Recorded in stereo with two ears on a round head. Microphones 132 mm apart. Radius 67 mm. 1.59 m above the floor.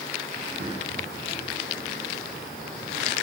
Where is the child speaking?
40° right (ahead or behind), 6.5 m.